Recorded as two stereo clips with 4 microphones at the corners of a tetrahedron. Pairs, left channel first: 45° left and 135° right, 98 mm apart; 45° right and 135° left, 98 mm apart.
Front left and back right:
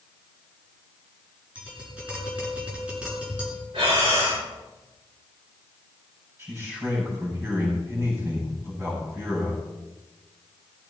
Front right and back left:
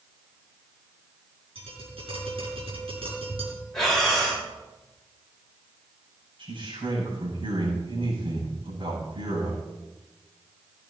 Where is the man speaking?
165° left, 8 m.